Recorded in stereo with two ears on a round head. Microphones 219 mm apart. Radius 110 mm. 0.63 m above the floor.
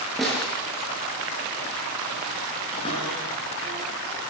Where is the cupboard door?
20° left (ahead or behind), 7.5 m.